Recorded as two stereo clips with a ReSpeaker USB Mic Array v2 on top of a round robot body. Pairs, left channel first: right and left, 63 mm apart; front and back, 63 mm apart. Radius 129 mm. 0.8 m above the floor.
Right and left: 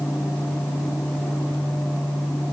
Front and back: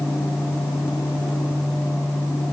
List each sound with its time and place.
Only background noise.